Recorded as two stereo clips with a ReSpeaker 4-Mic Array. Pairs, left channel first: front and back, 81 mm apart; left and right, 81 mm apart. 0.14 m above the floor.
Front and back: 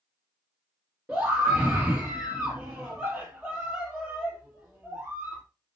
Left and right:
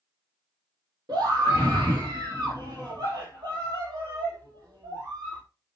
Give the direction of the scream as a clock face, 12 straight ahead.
3 o'clock.